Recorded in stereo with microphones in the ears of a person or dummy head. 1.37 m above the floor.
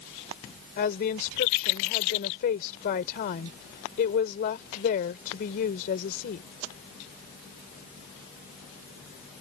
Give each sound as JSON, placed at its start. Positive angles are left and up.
{"t": 0.8, "sound": "a woman speaking", "side_deg": 50}